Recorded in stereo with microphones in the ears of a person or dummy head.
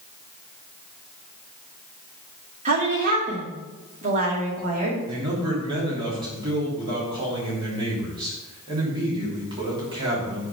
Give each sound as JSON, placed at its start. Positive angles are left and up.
{"t": 2.6, "sound": "a woman speaking", "side_deg": -40, "distance_m": 2.5}
{"t": 5.1, "sound": "a man speaking", "side_deg": -20, "distance_m": 3.0}